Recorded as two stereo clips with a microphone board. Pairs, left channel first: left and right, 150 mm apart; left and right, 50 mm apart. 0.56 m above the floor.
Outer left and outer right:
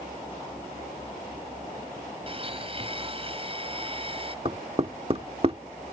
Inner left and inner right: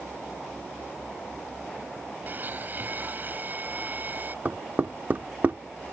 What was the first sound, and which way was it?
A blender, 40° right (ahead or behind).